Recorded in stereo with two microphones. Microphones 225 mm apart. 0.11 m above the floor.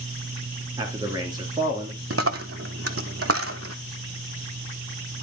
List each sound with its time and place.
0.8 s a man speaking: 15° right (ahead or behind), 1.7 m
2.1 s a dropped coin: 85° right, 0.6 m